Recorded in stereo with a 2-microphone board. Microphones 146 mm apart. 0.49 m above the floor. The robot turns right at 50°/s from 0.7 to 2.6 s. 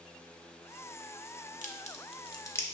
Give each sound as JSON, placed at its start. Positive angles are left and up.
{"t": 1.6, "sound": "a crack", "side_deg": 60, "distance_m": 0.6}